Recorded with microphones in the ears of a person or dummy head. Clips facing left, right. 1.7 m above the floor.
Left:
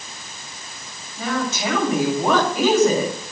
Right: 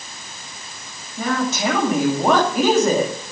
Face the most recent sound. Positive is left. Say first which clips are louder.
# right 3 dB
turn(degrees=-55)  # may be behind; listen again after turning